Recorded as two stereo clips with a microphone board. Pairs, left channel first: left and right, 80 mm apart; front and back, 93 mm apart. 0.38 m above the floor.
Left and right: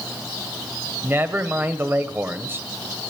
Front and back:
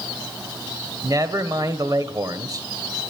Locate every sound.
1.0 s a man speaking: 145° right, 1.5 m